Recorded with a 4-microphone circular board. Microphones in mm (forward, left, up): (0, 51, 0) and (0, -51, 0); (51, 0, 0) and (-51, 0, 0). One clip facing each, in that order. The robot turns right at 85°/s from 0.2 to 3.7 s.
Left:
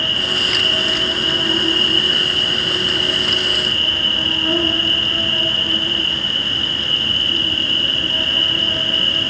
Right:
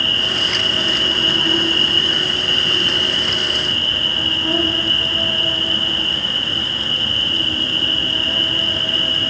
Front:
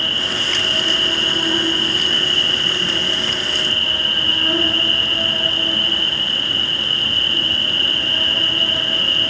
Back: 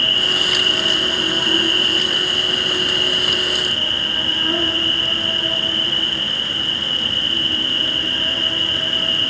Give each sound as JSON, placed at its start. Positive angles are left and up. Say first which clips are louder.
{"t": 0.0, "sound": "an insect", "louder": "even, back 1 dB", "azimuth_deg": 170, "distance_m": 3.0}